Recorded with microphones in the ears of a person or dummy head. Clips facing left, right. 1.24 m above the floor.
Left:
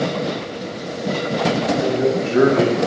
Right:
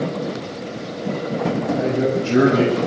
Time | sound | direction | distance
1.7 | a man speaking | 40° right (ahead or behind) | 10 m